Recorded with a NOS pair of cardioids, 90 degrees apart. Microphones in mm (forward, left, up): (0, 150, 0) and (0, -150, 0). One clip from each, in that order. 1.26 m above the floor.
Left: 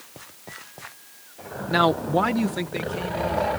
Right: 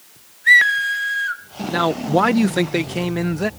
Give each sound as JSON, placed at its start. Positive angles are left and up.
{"t": 1.7, "sound": "a man speaking", "azimuth_deg": 15}